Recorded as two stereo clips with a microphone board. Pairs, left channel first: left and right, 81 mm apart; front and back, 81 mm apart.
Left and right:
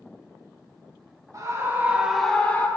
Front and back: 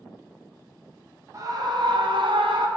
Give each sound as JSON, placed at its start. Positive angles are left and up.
{"t": 1.3, "sound": "a scream", "azimuth_deg": -135, "distance_m": 1.3}